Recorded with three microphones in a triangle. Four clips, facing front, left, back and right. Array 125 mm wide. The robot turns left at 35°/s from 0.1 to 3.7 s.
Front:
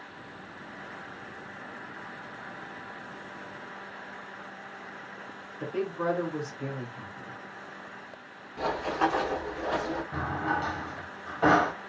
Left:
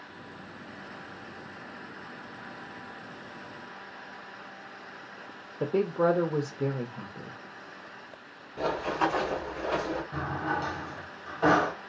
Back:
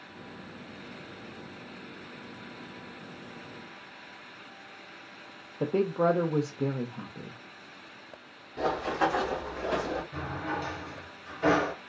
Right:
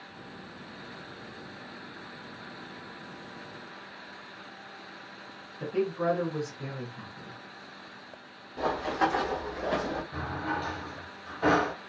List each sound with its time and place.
5.6 s a woman speaking: 135° left, 0.5 m
8.6 s running footsteps: 140° right, 1.4 m; by 10.0 s 55° right, 1.5 m
10.1 s a drawer: 10° left, 1.0 m